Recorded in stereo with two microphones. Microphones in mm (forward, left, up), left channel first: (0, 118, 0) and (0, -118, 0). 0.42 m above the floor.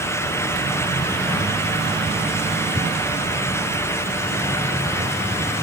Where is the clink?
No clink in this recording.